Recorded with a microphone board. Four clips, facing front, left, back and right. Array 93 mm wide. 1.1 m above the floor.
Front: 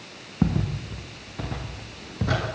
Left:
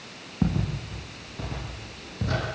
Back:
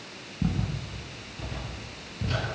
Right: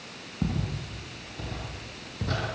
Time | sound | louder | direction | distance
0.4 | footsteps | left 4 dB, front 5 dB | 20° left | 6 m